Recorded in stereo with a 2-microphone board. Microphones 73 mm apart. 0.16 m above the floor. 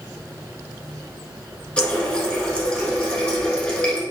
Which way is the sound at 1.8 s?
15° left (ahead or behind).